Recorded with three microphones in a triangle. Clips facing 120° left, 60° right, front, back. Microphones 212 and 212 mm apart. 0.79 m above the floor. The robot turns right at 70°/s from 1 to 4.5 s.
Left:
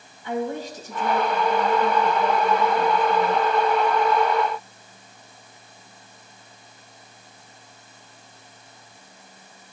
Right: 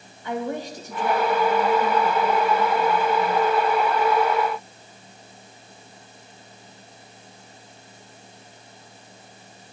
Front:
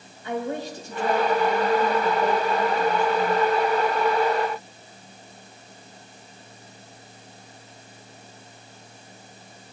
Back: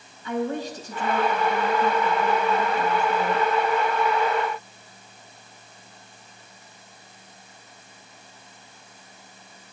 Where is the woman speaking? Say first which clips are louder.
Left 1 dB, back 2 dB; 30° right, 4 m; by 3.5 s 145° left, 4 m.